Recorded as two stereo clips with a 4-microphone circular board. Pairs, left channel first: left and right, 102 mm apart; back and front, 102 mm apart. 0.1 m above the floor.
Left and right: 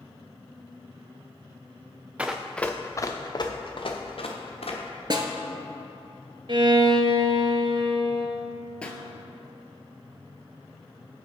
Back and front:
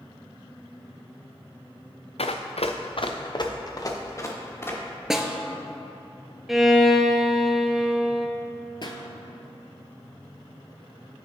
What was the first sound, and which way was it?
Running footsteps, 170° right.